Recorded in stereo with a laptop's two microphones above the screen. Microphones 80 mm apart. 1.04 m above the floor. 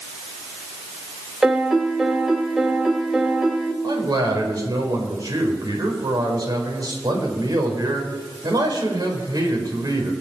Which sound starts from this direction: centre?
A piano, at 1.4 s.